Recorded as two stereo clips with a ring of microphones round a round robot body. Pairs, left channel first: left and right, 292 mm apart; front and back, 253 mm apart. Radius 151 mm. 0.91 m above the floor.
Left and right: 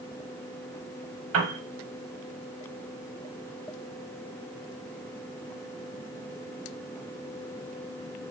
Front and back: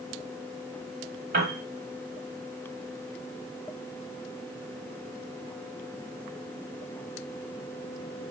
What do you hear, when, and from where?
1.3 s a piano: 125° right, 1.0 m